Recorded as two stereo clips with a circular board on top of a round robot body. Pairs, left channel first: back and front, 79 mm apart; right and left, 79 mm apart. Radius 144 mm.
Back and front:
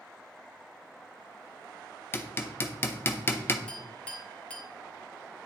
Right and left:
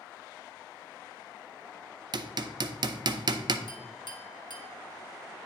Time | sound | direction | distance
2.1 | hammering | 120° left | 0.5 m
3.7 | a clink | 105° right | 1.3 m